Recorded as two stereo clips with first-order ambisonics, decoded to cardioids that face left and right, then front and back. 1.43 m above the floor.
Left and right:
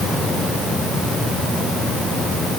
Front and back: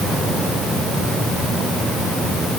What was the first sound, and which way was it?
Only background noise.